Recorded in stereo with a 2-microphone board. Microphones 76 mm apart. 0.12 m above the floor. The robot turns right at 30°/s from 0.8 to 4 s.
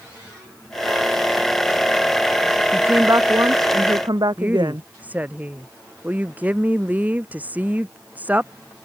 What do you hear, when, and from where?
2.7 s a woman speaking: 150° right; by 4.9 s 110° right
4.4 s a woman speaking: 20° right (ahead or behind)